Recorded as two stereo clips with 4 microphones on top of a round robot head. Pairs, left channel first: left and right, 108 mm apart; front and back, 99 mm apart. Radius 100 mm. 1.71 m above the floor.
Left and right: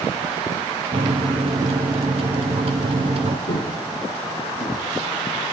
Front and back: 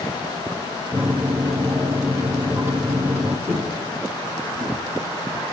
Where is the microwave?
105° right, 0.6 m.